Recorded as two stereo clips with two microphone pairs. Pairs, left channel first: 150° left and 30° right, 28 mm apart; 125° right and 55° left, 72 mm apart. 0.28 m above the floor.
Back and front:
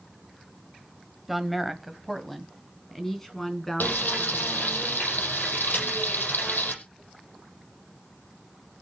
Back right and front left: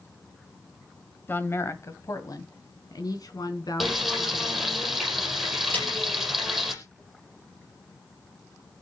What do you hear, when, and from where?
1.3 s a woman speaking: 110° right, 1.2 m; by 4.8 s 135° right, 3.5 m
3.8 s frying: 145° left, 5 m
5.7 s a snare drum: 175° left, 8.5 m